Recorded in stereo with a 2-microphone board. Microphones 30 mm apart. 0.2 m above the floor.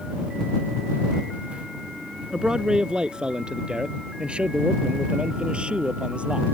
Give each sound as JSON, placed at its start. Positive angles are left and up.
{"t": 2.3, "sound": "a man speaking", "side_deg": -25}